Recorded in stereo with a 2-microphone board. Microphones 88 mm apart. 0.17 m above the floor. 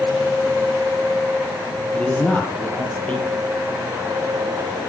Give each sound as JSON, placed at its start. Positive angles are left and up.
{"t": 1.9, "sound": "a man speaking", "side_deg": 15, "distance_m": 3.5}